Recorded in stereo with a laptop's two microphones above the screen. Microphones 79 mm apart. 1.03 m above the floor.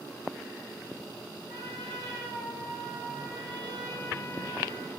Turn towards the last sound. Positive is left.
turn(degrees=-85)